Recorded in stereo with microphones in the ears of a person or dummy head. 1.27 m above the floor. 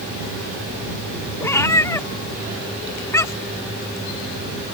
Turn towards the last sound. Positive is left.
turn(degrees=20)  # may be behind; listen again after turning